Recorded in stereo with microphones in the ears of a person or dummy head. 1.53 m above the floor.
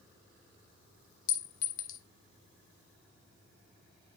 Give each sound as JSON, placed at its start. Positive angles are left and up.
{"t": 1.3, "sound": "a clink", "side_deg": 65, "distance_m": 1.1}